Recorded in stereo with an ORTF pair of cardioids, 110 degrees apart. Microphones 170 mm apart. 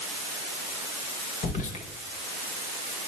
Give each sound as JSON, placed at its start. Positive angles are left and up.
{"t": 1.4, "sound": "whispering", "azimuth_deg": 45, "distance_m": 1.0}